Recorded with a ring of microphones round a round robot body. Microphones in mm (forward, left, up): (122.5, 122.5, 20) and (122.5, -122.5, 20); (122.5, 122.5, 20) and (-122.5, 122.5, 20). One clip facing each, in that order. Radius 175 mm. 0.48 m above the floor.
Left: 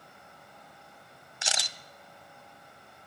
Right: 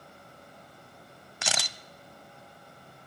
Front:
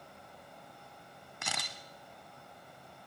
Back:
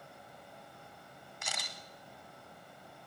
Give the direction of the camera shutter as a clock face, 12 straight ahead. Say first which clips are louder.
Right 3 dB, front 3 dB; 2 o'clock.